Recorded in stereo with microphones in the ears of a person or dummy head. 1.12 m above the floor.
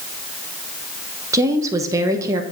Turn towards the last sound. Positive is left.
turn(degrees=-15)  # may be behind; listen again after turning